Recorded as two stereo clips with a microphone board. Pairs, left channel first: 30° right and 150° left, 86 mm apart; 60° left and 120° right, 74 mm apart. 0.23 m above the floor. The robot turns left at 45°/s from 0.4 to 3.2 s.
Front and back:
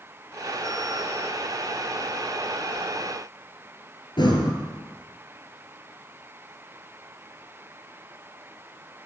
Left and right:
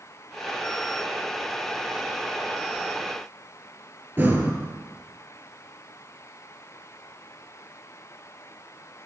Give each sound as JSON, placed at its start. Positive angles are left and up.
{"t": 4.2, "sound": "breathing", "azimuth_deg": -55, "distance_m": 2.0}